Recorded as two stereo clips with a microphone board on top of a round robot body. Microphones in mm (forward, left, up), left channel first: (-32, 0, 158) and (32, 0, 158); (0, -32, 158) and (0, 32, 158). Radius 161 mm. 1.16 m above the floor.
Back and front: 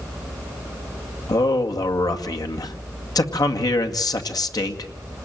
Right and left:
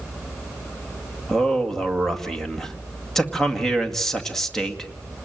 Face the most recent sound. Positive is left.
turn(degrees=-175)